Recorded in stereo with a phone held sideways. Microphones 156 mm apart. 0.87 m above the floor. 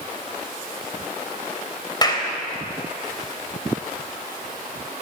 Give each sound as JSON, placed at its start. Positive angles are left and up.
{"t": 2.0, "sound": "a clap", "side_deg": 25, "distance_m": 3.5}